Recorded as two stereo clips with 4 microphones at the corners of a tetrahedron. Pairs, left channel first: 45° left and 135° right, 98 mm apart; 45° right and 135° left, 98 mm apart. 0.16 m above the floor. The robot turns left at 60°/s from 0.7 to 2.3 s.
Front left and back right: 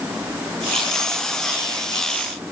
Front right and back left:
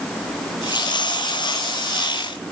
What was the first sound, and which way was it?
Only background noise.